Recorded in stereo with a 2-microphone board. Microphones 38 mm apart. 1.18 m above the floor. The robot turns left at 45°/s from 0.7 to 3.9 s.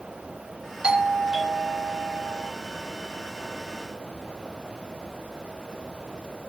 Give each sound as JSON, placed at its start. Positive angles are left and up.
{"t": 0.8, "sound": "a doorbell", "azimuth_deg": -30, "distance_m": 1.0}